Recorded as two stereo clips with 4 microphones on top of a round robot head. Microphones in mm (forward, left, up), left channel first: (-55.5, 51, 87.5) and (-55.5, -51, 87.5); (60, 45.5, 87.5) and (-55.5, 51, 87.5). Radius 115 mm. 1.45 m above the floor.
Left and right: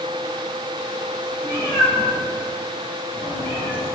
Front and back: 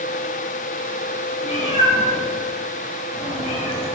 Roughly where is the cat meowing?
Ahead.